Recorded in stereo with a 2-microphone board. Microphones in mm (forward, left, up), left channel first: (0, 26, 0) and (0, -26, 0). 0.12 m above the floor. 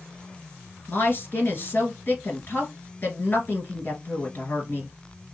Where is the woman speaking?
45° left (ahead or behind), 1.5 m.